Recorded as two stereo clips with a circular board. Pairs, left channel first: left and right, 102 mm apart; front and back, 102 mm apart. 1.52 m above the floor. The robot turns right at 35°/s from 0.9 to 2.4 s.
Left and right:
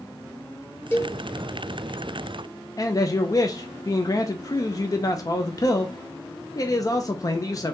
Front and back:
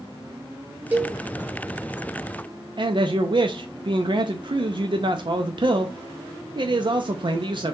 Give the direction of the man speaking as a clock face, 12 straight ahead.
7 o'clock.